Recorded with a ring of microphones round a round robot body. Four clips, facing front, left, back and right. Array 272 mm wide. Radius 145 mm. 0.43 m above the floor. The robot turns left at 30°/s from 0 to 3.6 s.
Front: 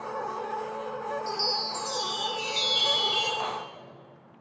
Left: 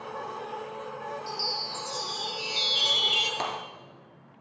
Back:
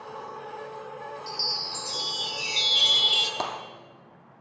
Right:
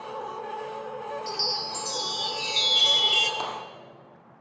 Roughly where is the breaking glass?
Behind.